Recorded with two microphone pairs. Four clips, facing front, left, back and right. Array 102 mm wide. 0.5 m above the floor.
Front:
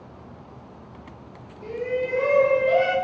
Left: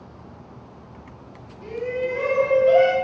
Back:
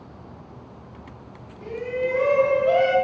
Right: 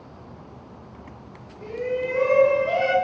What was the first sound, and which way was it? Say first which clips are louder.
A shout: even, even; 145° right.